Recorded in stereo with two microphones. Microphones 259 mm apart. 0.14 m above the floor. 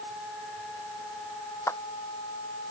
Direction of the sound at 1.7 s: 10° left (ahead or behind).